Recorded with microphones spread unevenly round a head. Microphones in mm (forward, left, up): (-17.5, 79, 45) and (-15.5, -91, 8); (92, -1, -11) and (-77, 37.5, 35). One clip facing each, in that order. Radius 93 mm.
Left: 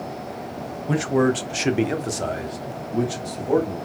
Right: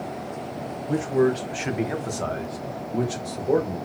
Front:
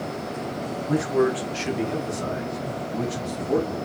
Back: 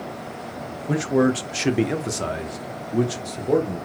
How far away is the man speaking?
About 0.8 m.